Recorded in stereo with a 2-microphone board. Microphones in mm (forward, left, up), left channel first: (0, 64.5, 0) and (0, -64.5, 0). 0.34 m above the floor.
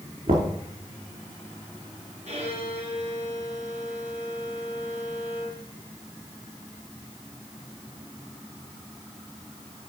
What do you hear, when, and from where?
0.3 s knocking: 75° right (ahead or behind), 4 m
2.3 s a violin: 60° right (ahead or behind), 4 m